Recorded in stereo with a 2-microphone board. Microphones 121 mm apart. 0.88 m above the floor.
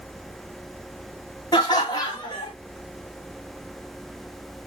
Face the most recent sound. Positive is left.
turn(degrees=35)  # may be behind; listen again after turning